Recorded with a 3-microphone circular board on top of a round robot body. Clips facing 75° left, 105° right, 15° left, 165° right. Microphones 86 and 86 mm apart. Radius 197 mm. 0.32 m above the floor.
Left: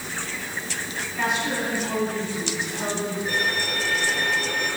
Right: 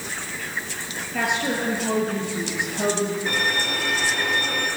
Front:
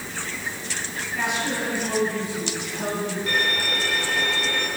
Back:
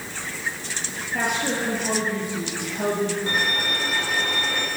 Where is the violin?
100° right, 5.5 m.